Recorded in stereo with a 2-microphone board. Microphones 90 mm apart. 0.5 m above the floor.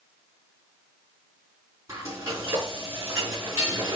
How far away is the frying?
About 4.5 m.